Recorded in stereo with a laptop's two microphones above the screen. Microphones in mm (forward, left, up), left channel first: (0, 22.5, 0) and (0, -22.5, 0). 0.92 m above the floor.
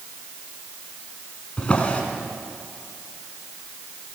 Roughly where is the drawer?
Left.